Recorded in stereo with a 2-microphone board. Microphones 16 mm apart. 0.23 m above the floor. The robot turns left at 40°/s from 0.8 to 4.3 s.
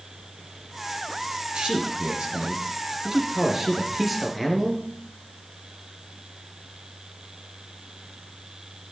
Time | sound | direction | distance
1.5 | a man speaking | 75° right | 3 m